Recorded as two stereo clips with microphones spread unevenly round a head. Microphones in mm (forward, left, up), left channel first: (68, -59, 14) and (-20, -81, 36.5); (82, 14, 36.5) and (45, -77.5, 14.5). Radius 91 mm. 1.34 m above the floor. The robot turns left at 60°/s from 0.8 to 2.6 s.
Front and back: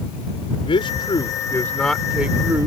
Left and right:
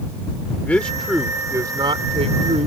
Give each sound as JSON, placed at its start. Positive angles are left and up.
{"t": 0.7, "sound": "a man speaking", "azimuth_deg": -5}